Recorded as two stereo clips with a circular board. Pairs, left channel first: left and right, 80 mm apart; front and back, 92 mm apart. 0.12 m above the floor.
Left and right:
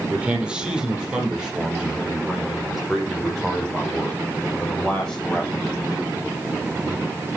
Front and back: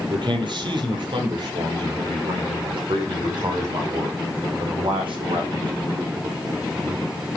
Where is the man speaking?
165° right, 4 m; by 6.2 s 175° left, 7.5 m.